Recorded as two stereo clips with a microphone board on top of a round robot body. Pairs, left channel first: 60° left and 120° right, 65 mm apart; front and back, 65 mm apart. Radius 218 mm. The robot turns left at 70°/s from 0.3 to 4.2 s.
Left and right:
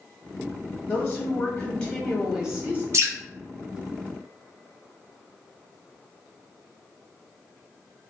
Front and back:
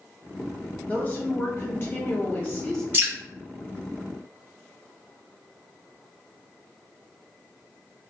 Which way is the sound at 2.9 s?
140° right.